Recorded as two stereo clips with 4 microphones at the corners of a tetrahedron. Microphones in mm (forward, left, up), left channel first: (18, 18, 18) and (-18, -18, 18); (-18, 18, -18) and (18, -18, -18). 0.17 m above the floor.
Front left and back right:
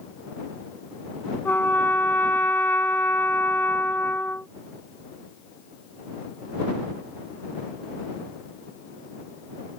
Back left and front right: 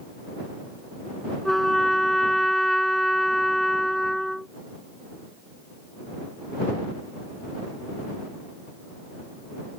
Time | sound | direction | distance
1.4 | a trumpet | 50° left | ?